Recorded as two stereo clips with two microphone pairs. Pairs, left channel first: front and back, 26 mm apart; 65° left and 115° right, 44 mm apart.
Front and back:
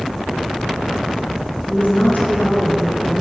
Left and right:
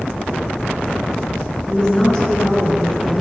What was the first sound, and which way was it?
A woman speaking, 5° right.